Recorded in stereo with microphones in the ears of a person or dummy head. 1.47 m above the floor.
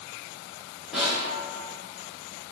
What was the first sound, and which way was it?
A snare drum, 5° right (ahead or behind).